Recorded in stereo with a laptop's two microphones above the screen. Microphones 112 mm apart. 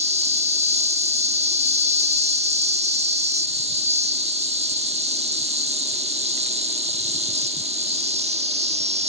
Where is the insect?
70° right (ahead or behind).